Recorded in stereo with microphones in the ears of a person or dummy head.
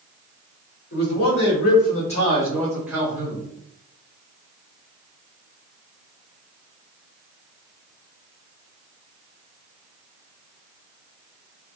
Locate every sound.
0.9 s a man speaking: 60° left (ahead or behind), 1.7 m; by 3.4 s 35° right (ahead or behind), 1.0 m